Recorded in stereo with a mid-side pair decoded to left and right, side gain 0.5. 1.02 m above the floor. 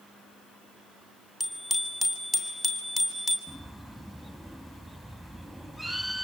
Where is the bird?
10° left, 3 m.